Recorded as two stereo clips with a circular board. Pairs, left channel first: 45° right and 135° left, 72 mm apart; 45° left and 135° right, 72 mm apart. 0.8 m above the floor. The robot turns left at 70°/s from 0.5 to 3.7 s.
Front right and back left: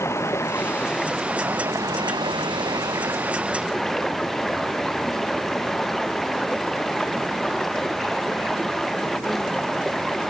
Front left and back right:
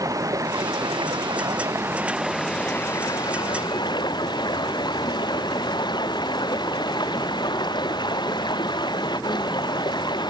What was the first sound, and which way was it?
Running water, 95° right.